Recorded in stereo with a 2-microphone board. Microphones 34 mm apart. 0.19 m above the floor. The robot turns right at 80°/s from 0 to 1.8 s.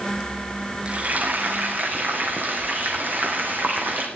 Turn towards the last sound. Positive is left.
turn(degrees=-70)